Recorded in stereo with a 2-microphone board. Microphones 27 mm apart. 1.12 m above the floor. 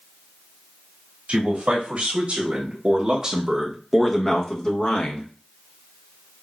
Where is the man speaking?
55° right (ahead or behind), 2 m; by 5.3 s 50° left (ahead or behind), 1.2 m.